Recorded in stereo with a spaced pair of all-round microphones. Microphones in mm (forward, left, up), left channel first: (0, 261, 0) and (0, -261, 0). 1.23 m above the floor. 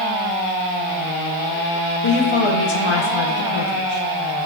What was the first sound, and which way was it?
A woman speaking, 60° left (ahead or behind).